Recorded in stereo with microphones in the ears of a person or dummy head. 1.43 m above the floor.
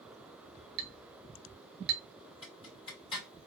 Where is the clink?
55° right (ahead or behind), 0.8 m.